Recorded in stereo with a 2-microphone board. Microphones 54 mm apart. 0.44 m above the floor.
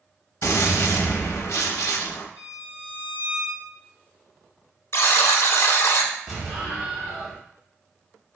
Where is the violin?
30° right (ahead or behind), 1.5 m.